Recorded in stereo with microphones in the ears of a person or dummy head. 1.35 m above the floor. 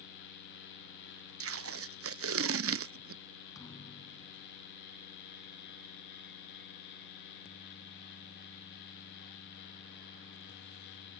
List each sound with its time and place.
1.4 s tape being pulled: 60° right (ahead or behind)
3.5 s a thud: 15° left (ahead or behind)